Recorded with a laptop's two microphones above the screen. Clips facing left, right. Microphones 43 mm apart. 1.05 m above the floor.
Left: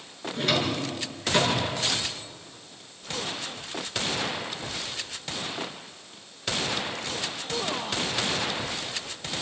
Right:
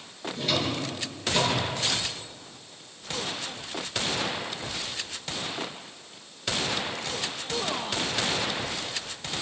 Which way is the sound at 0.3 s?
55° left (ahead or behind).